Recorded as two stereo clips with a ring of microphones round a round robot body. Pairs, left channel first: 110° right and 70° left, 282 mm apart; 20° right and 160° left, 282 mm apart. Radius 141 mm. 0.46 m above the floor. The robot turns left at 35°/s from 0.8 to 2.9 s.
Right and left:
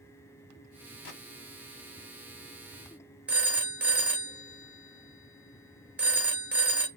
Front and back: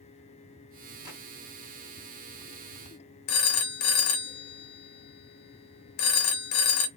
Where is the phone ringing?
15° right, 0.7 m.